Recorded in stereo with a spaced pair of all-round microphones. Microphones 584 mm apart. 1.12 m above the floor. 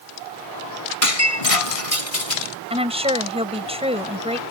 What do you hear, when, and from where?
1.0 s breaking glass: 70° left (ahead or behind)
2.7 s a woman speaking: 10° right (ahead or behind)